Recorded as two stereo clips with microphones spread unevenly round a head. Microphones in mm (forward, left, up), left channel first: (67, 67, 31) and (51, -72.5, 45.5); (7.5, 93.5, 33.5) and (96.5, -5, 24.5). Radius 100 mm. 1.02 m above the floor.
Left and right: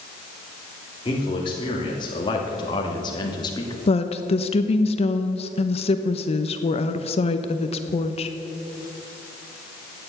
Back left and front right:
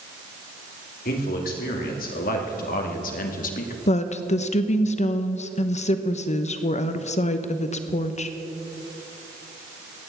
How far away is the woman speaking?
About 1.1 m.